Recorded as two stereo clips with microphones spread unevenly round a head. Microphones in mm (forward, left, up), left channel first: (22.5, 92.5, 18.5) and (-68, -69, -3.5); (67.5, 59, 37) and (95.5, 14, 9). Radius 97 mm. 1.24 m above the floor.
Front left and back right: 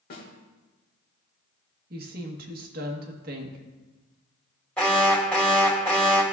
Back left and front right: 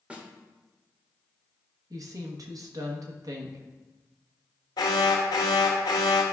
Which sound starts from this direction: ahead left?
A snare drum, at 0.1 s.